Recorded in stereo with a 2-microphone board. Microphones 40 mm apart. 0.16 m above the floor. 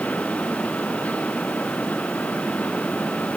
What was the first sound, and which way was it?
Only background noise.